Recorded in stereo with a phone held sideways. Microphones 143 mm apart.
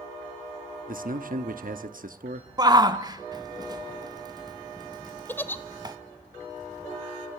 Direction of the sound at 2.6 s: 25° right (ahead or behind).